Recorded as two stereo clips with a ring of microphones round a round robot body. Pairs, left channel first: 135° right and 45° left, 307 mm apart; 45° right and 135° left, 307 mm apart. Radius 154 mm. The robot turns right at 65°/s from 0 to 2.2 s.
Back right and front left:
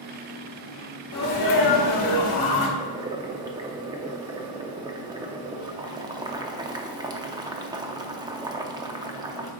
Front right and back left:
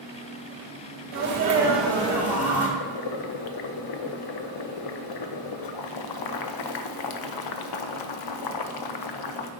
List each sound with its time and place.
1.1 s a sneeze: straight behind, 2.5 m; by 2.7 s 110° right, 2.5 m
2.8 s boiling: 30° right, 0.7 m